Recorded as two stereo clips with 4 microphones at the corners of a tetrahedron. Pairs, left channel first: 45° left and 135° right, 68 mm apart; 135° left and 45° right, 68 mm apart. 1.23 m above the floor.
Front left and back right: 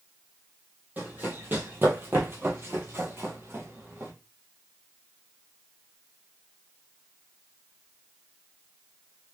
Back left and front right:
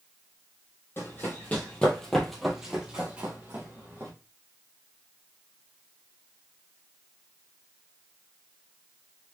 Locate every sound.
1.0 s running footsteps: 175° left, 1.6 m; by 4.1 s 85° right, 1.9 m